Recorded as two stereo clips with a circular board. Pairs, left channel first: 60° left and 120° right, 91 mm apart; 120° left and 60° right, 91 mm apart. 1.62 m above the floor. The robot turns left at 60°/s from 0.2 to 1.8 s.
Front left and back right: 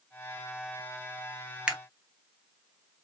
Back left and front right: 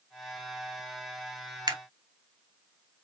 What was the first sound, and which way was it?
A camera shutter, 45° right.